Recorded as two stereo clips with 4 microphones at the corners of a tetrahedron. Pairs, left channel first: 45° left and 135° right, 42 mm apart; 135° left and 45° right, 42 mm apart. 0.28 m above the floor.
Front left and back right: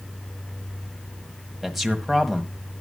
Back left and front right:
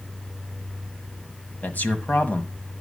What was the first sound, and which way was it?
A man speaking, 140° left.